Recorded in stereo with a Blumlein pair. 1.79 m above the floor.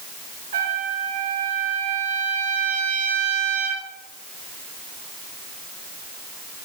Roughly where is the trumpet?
Right.